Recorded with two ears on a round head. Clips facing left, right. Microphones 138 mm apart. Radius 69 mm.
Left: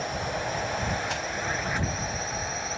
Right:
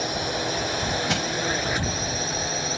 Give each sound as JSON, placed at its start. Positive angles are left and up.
{"t": 0.0, "sound": "a drone", "side_deg": -40}
{"t": 1.1, "sound": "crushing", "side_deg": -65}